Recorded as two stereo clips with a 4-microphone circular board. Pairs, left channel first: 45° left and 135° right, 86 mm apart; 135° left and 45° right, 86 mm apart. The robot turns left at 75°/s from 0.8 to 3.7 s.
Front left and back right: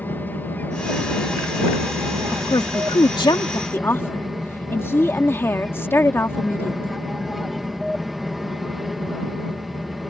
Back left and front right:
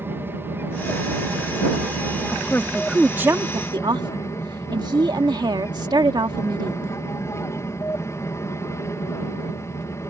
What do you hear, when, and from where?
0.0 s an aircraft: 5° right; by 10.1 s 135° left
2.3 s a woman speaking: 85° left; by 7.0 s 15° right